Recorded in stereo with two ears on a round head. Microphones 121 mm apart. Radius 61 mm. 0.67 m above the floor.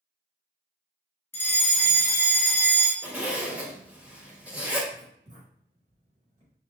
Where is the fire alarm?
15° left (ahead or behind), 1.6 m.